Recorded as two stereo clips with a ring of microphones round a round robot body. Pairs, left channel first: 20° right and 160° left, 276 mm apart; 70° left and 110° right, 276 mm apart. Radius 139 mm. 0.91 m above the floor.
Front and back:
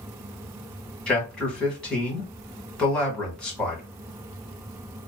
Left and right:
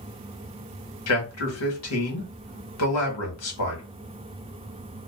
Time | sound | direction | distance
1.1 | a man speaking | 65° left | 1.2 m